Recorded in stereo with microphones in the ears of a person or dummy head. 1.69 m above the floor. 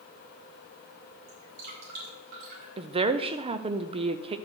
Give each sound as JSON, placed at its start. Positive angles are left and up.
{"t": 1.3, "sound": "dripping", "side_deg": -60, "distance_m": 5.0}
{"t": 2.8, "sound": "a woman speaking", "side_deg": -30, "distance_m": 0.5}